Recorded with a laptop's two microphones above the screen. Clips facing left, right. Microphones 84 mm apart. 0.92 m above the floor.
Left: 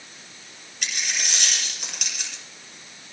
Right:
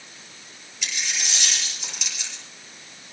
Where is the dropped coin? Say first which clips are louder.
Left 1 dB; 50° left (ahead or behind), 7.5 m.